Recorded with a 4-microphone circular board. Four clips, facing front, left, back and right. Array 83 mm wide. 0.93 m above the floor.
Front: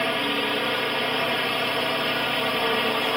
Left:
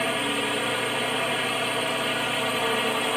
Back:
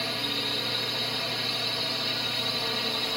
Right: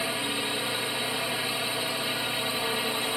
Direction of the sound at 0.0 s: 30° left.